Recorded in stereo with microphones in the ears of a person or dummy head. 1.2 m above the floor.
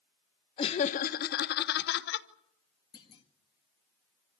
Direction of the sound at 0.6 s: 30° left (ahead or behind).